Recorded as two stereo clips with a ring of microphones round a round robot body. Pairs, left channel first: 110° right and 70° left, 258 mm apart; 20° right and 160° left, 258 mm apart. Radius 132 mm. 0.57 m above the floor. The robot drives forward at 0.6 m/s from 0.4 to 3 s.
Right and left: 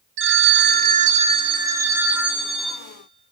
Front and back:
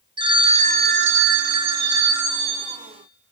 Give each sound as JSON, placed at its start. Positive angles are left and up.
{"t": 0.2, "sound": "a phone ringing", "azimuth_deg": 90, "distance_m": 0.8}